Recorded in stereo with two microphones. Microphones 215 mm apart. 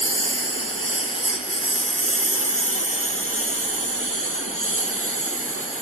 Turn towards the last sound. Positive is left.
turn(degrees=80)